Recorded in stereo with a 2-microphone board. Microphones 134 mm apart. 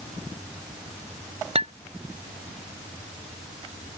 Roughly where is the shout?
I don't hear a shout.